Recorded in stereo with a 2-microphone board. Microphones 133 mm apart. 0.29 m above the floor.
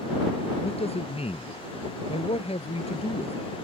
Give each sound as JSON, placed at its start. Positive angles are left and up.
{"t": 0.6, "sound": "a man speaking", "side_deg": 50}